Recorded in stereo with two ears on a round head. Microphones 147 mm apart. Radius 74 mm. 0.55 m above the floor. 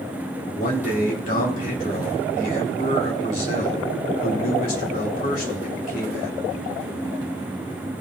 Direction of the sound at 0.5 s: 55° left (ahead or behind).